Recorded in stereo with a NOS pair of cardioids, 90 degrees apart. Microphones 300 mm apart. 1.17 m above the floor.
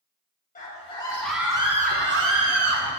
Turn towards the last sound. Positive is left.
turn(degrees=-65)